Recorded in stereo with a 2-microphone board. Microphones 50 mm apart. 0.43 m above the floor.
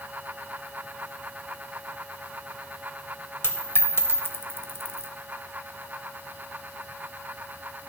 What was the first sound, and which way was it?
A dropped coin, 50° left (ahead or behind).